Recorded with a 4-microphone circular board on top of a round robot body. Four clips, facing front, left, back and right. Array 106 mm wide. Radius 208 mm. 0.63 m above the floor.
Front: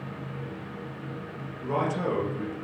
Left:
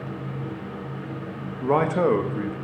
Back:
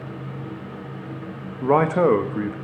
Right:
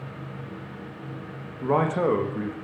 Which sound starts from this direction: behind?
A man speaking, at 1.6 s.